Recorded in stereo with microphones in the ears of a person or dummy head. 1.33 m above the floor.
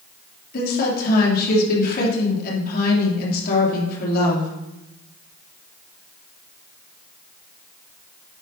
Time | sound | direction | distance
0.5 | a woman speaking | 55° left (ahead or behind) | 3 m